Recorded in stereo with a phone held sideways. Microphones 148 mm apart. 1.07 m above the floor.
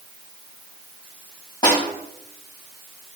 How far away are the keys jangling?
I don't hear keys jangling.